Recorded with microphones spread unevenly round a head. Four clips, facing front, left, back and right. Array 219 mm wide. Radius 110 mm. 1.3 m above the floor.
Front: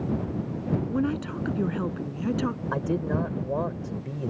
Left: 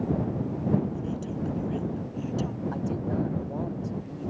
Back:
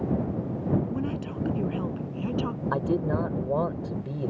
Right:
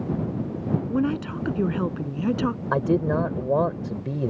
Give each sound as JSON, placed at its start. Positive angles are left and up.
{"t": 0.9, "sound": "a woman speaking", "azimuth_deg": -70}
{"t": 2.7, "sound": "a man speaking", "azimuth_deg": -90}